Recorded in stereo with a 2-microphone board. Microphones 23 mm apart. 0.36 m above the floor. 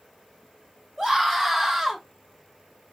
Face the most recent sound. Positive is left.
turn(degrees=-30)  # may be behind; listen again after turning